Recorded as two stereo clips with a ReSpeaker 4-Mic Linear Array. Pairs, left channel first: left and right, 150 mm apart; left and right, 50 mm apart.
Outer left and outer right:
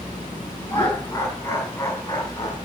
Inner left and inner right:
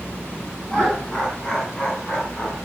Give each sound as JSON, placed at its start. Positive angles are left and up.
{"t": 0.7, "sound": "laughter", "side_deg": 15, "distance_m": 6.5}